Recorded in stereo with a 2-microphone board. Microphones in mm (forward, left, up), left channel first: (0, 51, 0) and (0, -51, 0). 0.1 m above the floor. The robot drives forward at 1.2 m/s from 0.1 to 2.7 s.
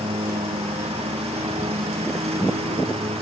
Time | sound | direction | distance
0.0 | a lawn mower | 80° right | ?